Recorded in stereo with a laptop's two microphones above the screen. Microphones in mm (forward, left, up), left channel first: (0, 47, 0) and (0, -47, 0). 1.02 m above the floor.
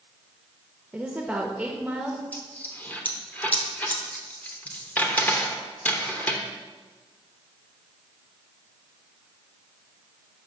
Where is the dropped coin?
15° left (ahead or behind), 0.8 m.